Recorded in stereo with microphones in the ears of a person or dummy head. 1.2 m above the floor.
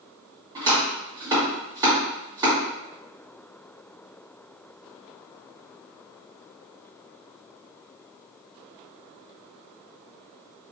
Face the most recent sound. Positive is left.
turn(degrees=-20)  # may be behind; listen again after turning